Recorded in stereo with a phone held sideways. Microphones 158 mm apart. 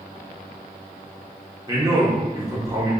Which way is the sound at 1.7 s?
20° right (ahead or behind).